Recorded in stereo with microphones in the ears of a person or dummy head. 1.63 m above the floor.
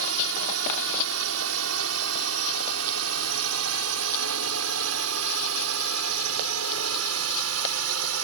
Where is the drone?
75° right (ahead or behind); by 8.2 s 80° right.